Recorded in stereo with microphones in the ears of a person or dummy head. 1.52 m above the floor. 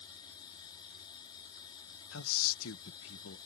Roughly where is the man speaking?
Left.